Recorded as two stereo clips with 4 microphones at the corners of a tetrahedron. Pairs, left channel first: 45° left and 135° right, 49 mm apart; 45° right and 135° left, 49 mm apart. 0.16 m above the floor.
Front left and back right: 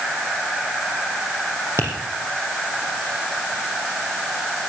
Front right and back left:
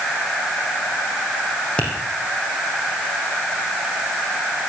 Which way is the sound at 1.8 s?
115° right.